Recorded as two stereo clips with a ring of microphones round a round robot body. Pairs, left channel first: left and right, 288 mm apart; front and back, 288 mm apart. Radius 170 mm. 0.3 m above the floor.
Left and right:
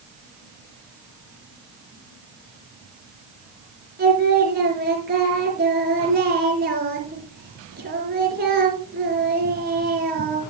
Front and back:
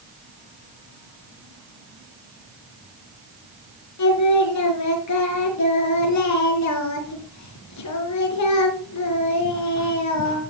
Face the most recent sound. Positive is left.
turn(degrees=-30)